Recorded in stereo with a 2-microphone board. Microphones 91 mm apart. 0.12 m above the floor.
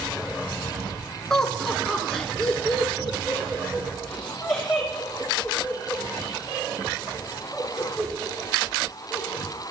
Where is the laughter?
5° left (ahead or behind), 1.1 m; by 9.4 s centre (ahead or behind), 8 m.